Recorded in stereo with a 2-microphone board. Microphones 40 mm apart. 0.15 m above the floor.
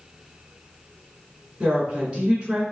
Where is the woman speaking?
25° right (ahead or behind), 2 m.